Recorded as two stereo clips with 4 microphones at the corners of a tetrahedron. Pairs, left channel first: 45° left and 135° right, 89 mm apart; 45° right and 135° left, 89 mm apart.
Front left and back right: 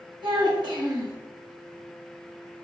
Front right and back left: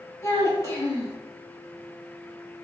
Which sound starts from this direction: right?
A child speaking, at 0.2 s.